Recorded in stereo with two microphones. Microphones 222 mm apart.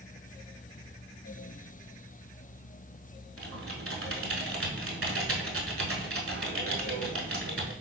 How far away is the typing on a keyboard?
About 0.6 m.